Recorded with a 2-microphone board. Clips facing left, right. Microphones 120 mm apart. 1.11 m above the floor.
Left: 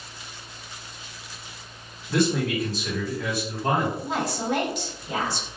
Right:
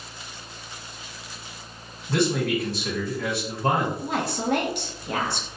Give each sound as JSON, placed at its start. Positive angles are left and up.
{"t": 2.1, "sound": "a man speaking", "side_deg": -65, "distance_m": 1.6}
{"t": 4.0, "sound": "a woman speaking", "side_deg": -60, "distance_m": 0.8}